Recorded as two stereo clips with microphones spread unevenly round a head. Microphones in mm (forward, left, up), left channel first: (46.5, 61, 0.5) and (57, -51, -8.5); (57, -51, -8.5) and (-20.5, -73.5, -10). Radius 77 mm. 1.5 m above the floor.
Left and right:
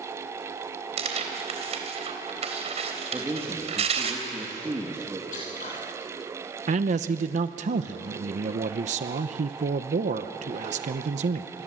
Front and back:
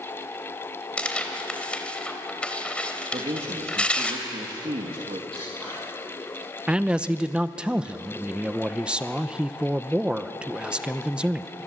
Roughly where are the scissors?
Left.